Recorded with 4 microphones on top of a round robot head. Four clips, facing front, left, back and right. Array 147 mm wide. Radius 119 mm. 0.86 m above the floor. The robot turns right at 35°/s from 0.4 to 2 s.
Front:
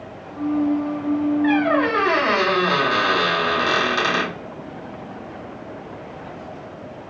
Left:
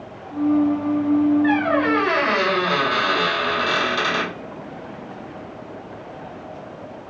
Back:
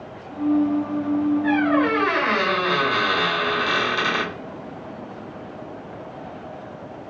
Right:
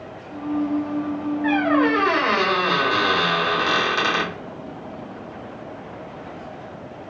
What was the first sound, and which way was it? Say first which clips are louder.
A squeak: even, front 2 dB; 60° right.